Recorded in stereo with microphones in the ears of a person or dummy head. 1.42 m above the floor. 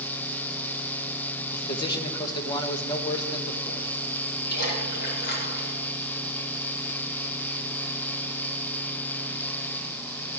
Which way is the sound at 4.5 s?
60° left (ahead or behind).